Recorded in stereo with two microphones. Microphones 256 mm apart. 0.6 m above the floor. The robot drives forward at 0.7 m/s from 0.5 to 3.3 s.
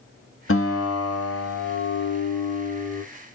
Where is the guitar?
55° left (ahead or behind), 0.9 m; by 3.0 s 25° left (ahead or behind), 1.5 m.